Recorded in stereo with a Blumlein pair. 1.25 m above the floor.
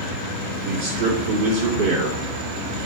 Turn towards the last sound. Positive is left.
turn(degrees=-45)